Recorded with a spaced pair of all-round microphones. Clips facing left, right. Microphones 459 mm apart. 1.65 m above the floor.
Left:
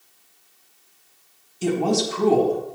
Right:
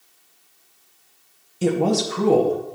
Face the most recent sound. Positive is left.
turn(degrees=-70)  # may be behind; listen again after turning